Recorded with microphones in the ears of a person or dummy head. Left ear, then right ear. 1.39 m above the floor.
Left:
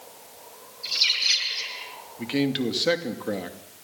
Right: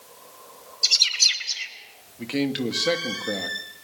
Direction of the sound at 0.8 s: 70° right (ahead or behind).